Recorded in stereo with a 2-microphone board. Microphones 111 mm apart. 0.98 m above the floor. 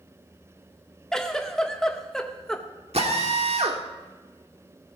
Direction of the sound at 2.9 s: 70° right (ahead or behind).